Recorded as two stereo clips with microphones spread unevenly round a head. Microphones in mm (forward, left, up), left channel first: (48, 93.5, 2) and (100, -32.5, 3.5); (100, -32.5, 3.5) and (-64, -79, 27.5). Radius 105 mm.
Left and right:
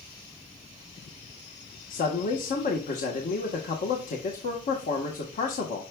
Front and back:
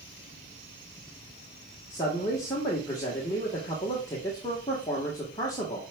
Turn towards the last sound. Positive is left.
turn(degrees=90)